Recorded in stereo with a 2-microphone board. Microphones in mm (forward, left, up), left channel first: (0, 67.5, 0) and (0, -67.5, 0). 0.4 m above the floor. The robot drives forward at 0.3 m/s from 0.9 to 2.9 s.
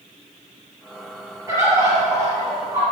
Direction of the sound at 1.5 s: 25° right (ahead or behind).